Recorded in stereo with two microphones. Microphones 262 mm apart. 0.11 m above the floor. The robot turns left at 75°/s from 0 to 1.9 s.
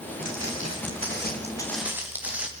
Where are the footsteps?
70° left (ahead or behind), 9 m; by 2.5 s 5° right (ahead or behind), 6 m.